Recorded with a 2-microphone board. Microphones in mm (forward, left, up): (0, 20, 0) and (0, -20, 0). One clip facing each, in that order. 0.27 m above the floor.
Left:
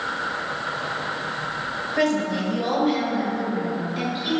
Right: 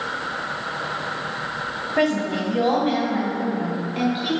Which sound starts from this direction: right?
A woman speaking, at 2.0 s.